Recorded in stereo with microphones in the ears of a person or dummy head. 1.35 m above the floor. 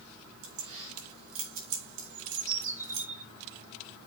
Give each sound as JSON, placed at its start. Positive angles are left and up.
{"t": 0.4, "sound": "keys jangling", "side_deg": -80, "distance_m": 4.0}
{"t": 2.1, "sound": "a bird", "side_deg": -40, "distance_m": 5.5}